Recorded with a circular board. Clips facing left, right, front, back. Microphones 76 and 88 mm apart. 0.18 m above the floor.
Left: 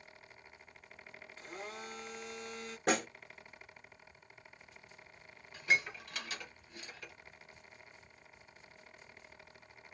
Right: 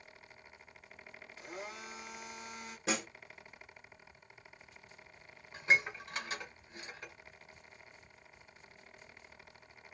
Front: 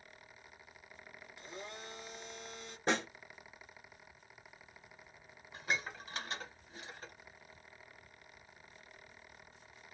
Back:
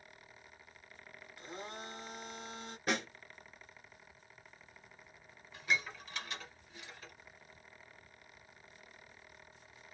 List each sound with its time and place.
1.4 s a blender: 170° right, 1.4 m
2.9 s a snare drum: 60° left, 0.9 m
5.5 s dishes clattering: 40° right, 1.2 m